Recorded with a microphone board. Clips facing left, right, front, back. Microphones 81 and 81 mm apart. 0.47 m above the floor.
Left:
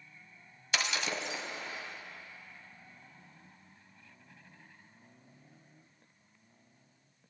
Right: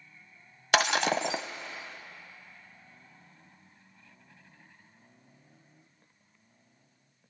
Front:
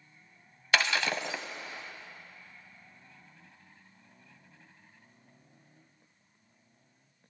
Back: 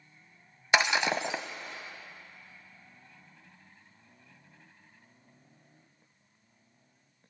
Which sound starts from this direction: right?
Breaking glass, at 0.7 s.